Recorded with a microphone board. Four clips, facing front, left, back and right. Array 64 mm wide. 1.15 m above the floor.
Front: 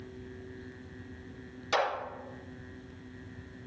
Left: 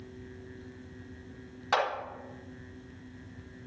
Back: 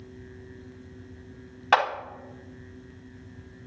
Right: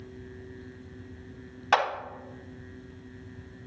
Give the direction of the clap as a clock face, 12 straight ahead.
5 o'clock.